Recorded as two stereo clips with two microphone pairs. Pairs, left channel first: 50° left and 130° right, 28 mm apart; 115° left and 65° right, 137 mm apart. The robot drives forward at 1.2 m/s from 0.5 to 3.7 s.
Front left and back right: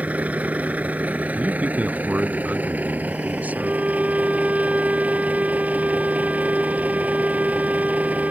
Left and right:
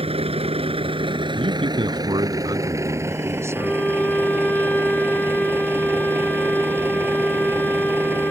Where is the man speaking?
105° right; by 3.8 s 135° right.